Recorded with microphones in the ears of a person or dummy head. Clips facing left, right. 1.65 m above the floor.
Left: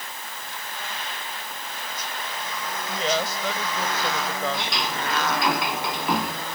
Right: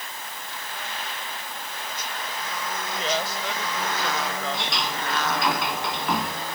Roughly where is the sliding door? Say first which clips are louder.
Left 1 dB; centre.